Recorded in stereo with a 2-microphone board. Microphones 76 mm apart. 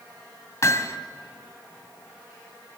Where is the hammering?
40° left (ahead or behind), 1.8 m.